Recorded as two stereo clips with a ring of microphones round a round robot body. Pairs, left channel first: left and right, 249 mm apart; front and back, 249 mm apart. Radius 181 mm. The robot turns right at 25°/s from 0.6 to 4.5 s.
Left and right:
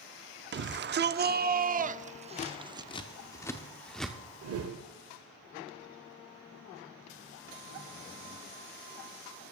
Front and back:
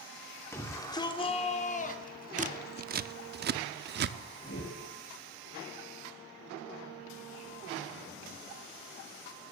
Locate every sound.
0.5 s a shout: 75° right, 0.8 m; by 2.9 s 20° right, 0.8 m
2.4 s scissors: 135° left, 0.5 m; by 4.2 s straight behind, 0.5 m
4.4 s a whoosh: 65° right, 0.9 m; by 4.8 s 60° right, 0.9 m